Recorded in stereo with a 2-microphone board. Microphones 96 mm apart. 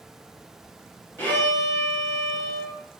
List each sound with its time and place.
1.2 s a violin: 25° left (ahead or behind), 1.1 m